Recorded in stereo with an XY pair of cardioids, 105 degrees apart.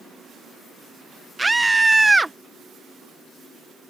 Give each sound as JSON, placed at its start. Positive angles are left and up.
{"t": 1.4, "sound": "a scream", "azimuth_deg": -15}